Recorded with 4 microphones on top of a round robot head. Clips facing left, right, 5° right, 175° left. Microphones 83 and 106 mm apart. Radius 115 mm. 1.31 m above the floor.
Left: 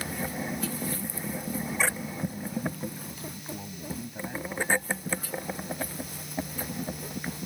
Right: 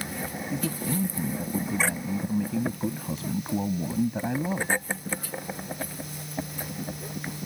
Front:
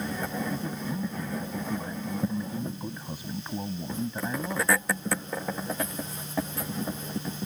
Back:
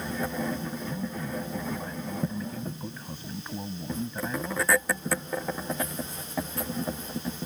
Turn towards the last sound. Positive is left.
turn(degrees=-85)